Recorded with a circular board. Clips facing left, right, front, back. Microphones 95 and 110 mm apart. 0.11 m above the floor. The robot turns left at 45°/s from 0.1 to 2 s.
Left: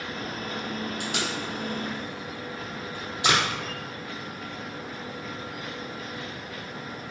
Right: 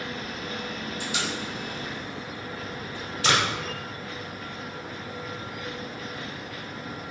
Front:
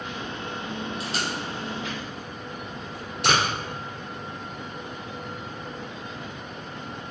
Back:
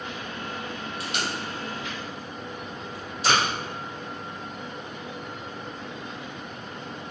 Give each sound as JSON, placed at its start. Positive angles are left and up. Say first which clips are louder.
{"t": 1.0, "sound": "tape being pulled", "louder": "left 1 dB, front 1 dB", "azimuth_deg": 65, "distance_m": 4.0}